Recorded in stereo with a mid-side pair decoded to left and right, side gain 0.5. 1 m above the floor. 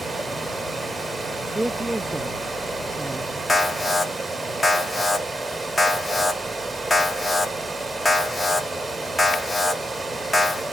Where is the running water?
10° right, 3.5 m.